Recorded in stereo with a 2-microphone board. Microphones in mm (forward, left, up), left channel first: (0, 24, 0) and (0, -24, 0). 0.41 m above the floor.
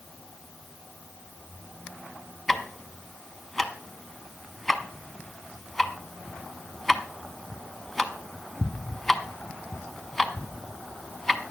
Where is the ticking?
5° left (ahead or behind), 0.8 m.